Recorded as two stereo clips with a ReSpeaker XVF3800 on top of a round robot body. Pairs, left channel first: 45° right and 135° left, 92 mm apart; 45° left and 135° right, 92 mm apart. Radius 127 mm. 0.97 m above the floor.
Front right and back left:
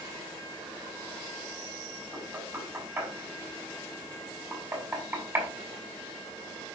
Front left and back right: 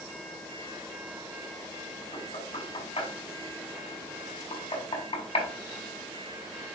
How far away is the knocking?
About 4 m.